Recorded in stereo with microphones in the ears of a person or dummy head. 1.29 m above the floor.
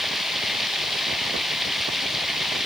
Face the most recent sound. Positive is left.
turn(degrees=0)  # may be behind; listen again after turning